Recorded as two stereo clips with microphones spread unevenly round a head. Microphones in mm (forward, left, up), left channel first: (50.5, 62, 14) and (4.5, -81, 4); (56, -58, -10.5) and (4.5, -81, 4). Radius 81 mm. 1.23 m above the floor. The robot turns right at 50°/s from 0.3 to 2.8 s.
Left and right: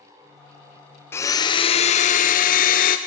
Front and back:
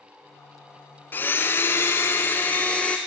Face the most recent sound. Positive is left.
turn(degrees=80)